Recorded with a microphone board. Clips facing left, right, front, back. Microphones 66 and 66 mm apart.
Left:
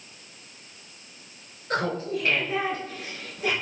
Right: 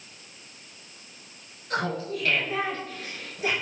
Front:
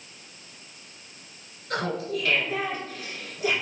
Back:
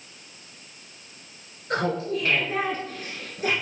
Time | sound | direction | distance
1.7 | laughter | 130° left | 1.8 m